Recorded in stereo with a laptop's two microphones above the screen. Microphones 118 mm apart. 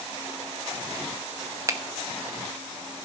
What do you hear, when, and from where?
1.7 s a finger snap: 25° right (ahead or behind), 0.9 m